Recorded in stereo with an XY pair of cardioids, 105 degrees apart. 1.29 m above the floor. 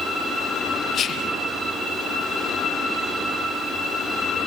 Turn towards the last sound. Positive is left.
turn(degrees=50)